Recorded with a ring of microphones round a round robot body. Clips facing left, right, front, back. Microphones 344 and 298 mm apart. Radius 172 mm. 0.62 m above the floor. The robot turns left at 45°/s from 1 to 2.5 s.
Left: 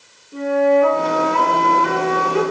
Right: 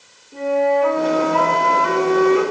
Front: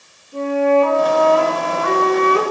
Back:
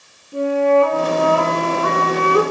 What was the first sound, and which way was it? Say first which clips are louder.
A flute: left 2 dB, even; 170° left.